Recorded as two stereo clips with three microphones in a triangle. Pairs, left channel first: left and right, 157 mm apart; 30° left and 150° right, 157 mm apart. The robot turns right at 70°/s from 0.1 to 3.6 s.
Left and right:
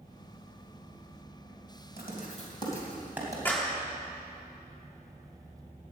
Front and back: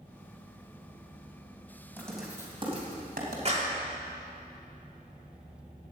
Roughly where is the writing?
Left.